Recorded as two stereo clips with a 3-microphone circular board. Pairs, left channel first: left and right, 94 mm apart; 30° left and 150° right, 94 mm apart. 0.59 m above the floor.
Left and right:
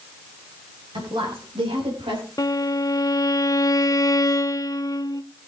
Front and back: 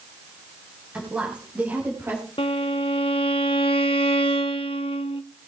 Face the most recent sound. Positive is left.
turn(degrees=40)